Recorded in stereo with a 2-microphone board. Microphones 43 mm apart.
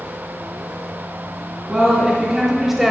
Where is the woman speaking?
15° right (ahead or behind), 2.5 m; by 2.9 s 5° right (ahead or behind), 1.0 m.